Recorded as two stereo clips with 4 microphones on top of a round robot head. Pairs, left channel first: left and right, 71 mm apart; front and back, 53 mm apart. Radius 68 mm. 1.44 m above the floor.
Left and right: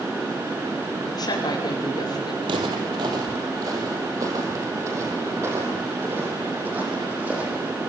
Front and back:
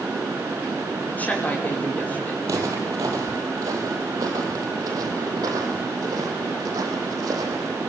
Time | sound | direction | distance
1.1 | a woman speaking | 60° left | 5.5 m
2.4 | footsteps | 130° right | 3 m